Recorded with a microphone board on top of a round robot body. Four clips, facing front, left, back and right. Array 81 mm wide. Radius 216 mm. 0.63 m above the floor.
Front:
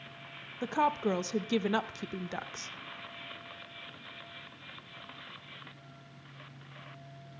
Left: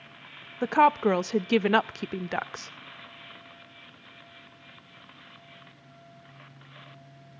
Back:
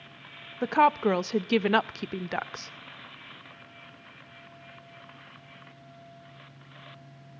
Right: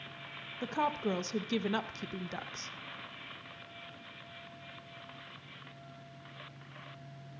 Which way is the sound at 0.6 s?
120° left.